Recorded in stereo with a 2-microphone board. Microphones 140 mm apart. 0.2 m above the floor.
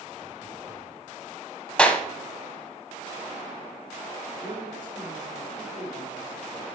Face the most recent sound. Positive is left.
turn(degrees=-40)  # may be behind; listen again after turning